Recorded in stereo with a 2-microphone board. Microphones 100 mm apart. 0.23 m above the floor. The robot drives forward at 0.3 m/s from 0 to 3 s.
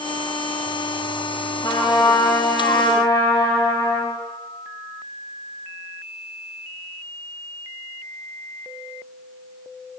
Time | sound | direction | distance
1.6 | a trumpet | 40° left (ahead or behind) | 7.5 m